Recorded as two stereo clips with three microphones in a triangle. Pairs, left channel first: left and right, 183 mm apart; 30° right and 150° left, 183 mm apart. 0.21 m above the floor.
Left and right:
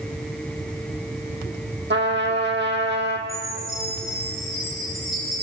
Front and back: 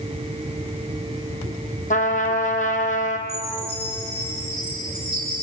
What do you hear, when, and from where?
1.9 s a trumpet: 75° right, 2.5 m
3.3 s a chime: straight behind, 7 m